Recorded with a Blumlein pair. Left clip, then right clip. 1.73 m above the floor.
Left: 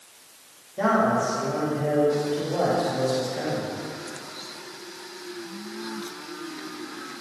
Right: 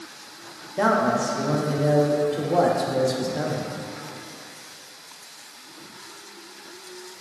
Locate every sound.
0.8 s a man speaking: 65° right, 1.4 m